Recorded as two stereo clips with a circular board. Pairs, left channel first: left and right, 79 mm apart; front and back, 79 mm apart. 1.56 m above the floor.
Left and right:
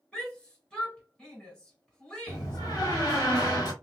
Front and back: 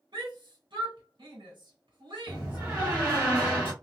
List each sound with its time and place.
0.1 s a shout: 170° left, 1.4 m
2.3 s a door slam: 115° left, 1.7 m